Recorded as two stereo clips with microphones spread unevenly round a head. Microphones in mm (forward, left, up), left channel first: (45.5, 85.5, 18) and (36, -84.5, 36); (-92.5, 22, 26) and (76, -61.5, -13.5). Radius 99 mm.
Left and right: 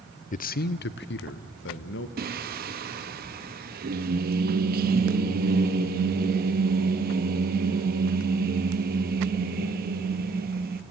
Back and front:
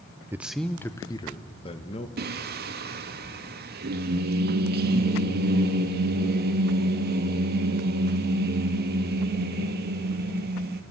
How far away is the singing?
About 1.1 m.